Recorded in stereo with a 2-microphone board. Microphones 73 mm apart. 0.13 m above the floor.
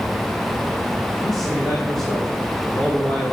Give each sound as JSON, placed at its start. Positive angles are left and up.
{"t": 1.2, "sound": "a man speaking", "side_deg": 5, "distance_m": 5.5}